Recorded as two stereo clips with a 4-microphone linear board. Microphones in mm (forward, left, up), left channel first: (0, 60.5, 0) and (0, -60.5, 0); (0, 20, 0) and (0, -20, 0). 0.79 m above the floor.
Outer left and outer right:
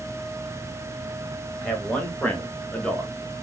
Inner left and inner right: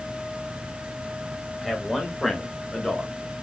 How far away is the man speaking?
About 1.2 m.